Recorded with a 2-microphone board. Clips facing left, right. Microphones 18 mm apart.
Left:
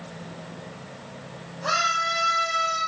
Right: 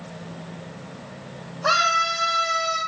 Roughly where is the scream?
Right.